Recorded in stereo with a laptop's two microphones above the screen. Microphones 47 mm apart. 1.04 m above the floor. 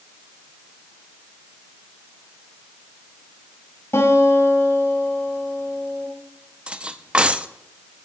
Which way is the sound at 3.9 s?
75° left (ahead or behind).